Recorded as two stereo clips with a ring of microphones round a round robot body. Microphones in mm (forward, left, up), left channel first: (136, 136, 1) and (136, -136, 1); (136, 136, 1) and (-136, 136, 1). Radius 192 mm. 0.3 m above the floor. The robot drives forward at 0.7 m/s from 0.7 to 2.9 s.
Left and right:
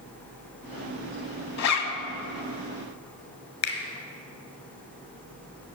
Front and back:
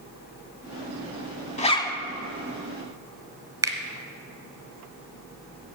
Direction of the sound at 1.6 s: 65° left.